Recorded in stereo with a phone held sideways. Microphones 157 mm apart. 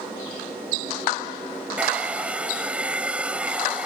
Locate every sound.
1.8 s a hair dryer: 10° right (ahead or behind)